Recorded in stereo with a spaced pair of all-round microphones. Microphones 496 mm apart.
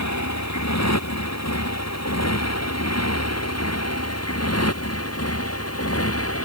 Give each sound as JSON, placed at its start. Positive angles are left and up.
{"t": 0.0, "sound": "a motorcycle", "side_deg": 35}